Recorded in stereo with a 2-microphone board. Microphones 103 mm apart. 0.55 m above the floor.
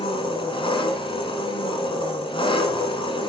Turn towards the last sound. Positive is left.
turn(degrees=55)  # may be behind; listen again after turning